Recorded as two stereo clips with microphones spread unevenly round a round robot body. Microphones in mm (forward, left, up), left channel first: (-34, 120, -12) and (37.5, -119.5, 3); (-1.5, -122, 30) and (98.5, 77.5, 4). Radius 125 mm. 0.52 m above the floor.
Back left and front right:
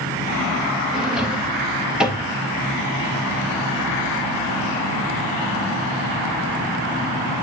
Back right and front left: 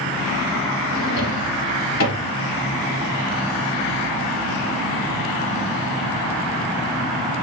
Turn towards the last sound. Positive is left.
turn(degrees=-160)